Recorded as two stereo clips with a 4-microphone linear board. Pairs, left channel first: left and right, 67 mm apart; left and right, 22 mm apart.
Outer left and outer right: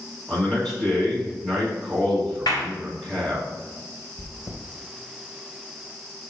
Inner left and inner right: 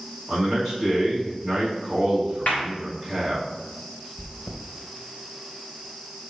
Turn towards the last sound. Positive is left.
turn(degrees=55)  # may be behind; listen again after turning